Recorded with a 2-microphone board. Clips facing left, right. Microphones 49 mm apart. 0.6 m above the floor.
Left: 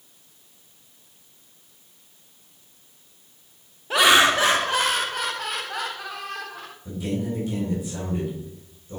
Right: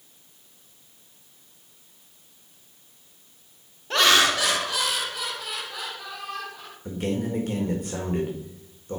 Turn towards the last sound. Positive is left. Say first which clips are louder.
# right 1 dB
turn(degrees=-65)  # may be behind; listen again after turning